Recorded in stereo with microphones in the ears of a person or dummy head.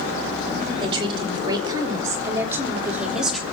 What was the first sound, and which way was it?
A woman speaking, 30° right (ahead or behind).